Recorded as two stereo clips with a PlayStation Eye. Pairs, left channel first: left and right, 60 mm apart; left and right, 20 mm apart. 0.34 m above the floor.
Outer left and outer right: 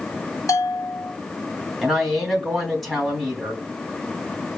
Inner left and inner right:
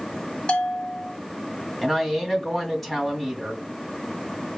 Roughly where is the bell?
Left.